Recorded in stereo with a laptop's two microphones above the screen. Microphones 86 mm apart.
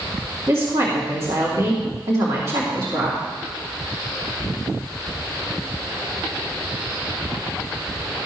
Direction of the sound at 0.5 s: 50° right (ahead or behind).